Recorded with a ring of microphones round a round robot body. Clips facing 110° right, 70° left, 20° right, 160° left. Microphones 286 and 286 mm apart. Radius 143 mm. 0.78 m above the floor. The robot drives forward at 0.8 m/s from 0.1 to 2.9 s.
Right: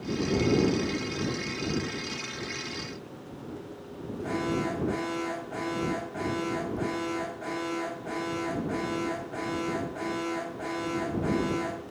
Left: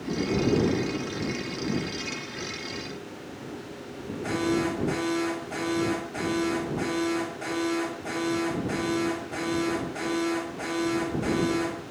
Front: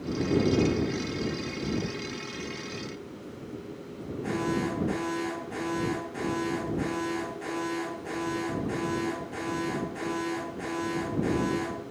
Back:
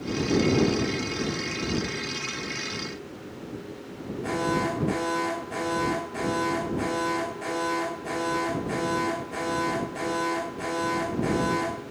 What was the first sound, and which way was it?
An alarm, 85° left.